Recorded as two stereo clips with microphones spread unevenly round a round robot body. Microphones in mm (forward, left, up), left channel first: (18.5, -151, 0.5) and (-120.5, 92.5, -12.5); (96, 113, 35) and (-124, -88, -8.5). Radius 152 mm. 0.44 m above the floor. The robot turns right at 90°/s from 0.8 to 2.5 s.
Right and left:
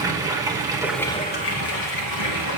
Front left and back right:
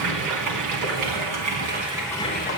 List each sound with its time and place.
0.0 s running water: 165° right, 2.5 m; by 2.6 s 10° right, 2.5 m